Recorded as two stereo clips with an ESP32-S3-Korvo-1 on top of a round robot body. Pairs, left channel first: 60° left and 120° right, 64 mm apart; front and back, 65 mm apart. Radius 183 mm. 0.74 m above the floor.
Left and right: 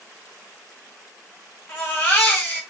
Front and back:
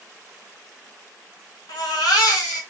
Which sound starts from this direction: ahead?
A baby crying, at 1.7 s.